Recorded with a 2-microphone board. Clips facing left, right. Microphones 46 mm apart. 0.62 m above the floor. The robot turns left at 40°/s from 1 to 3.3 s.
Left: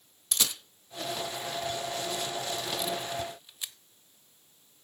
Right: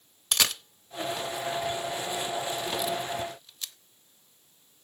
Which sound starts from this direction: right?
A camera shutter, at 0.3 s.